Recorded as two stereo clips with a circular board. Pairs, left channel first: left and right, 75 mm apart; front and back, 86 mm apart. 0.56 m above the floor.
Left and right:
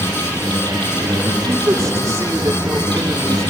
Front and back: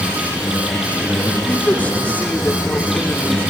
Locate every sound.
0.0 s an insect: 95° right, 5.5 m
1.5 s a man speaking: 65° right, 1.4 m